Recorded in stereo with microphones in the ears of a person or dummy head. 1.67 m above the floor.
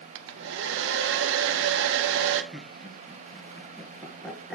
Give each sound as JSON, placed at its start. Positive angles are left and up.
{"t": 0.1, "sound": "a hair dryer", "side_deg": -65, "distance_m": 0.7}
{"t": 2.5, "sound": "laughter", "side_deg": 5, "distance_m": 1.8}